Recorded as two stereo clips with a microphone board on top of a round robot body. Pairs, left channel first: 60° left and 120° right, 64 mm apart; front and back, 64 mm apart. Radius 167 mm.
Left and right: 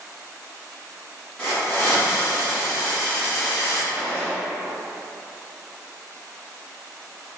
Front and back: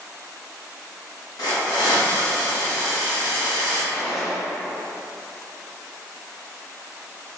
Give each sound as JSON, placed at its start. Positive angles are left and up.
{"t": 1.4, "sound": "a hiss", "azimuth_deg": -10, "distance_m": 1.5}
{"t": 3.9, "sound": "a gunshot", "azimuth_deg": -90, "distance_m": 1.6}